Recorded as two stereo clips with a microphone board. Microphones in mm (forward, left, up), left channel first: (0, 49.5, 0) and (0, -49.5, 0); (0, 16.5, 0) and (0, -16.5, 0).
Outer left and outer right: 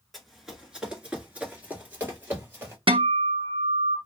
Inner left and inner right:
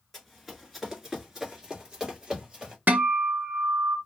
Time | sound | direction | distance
0.1 | running footsteps | centre (ahead or behind) | 1.7 m
2.9 | a guitar | 60° right (ahead or behind) | 0.8 m